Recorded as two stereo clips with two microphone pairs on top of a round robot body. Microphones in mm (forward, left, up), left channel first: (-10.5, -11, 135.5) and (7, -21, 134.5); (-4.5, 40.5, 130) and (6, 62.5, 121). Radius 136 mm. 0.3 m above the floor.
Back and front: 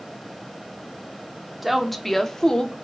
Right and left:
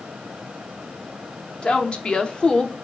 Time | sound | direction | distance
1.6 | a woman speaking | 80° right | 1.0 m